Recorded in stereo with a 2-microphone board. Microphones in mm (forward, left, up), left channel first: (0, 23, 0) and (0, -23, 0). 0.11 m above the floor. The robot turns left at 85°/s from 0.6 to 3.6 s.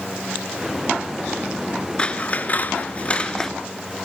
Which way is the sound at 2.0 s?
145° left.